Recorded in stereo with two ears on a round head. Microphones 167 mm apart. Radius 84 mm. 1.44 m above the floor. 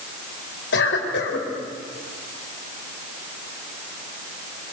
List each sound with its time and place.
0.7 s a cough: 60° left (ahead or behind), 4.5 m